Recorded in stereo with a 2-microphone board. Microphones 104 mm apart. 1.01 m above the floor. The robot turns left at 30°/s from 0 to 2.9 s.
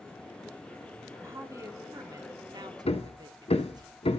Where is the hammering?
65° left (ahead or behind), 1.1 m.